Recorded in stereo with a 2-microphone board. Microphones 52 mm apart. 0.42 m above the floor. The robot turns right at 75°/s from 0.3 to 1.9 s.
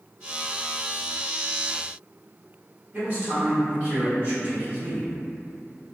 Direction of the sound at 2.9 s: 35° right (ahead or behind).